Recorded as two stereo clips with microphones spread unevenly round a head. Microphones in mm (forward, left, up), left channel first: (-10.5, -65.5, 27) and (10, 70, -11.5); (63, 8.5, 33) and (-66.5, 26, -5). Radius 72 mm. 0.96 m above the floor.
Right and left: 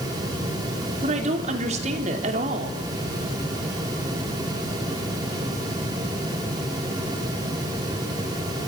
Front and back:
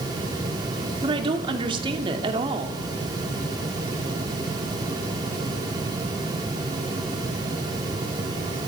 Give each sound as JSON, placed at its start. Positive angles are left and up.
{"t": 1.0, "sound": "a woman speaking", "azimuth_deg": 120, "distance_m": 2.5}